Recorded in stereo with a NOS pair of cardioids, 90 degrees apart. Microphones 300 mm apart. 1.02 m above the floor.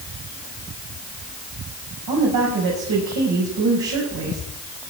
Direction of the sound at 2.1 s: 65° right.